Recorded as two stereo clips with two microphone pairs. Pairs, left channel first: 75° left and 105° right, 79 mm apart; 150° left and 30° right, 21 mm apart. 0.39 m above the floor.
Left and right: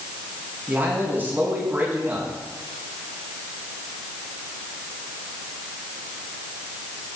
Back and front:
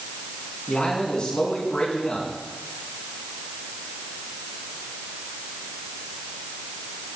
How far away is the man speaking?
About 4.5 m.